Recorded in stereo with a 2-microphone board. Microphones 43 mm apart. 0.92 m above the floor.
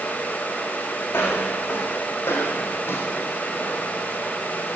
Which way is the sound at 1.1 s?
60° left (ahead or behind).